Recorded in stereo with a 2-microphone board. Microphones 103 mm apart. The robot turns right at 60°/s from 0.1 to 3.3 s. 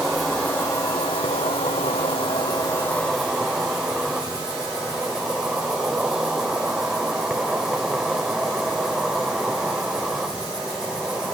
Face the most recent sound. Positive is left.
turn(degrees=-175)